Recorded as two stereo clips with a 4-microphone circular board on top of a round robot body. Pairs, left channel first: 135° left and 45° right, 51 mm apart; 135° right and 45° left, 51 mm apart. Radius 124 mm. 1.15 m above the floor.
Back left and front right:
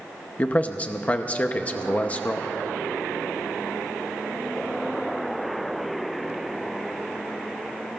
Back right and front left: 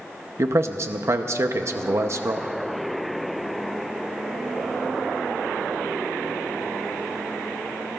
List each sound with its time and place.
0.4 s a man speaking: 75° left, 0.8 m